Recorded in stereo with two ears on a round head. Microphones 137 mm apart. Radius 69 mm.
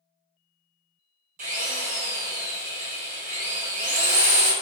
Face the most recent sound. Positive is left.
turn(degrees=-55)  # may be behind; listen again after turning